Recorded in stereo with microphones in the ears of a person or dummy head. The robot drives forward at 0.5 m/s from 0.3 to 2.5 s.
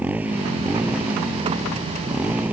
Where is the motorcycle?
5° right (ahead or behind).